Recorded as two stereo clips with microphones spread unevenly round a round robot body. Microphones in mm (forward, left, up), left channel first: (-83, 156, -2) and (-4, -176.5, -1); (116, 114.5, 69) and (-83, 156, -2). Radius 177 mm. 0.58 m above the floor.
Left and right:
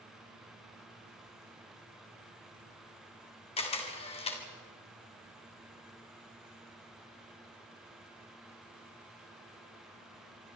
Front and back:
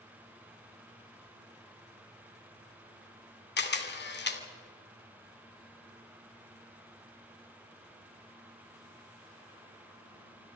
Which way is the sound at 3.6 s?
30° left.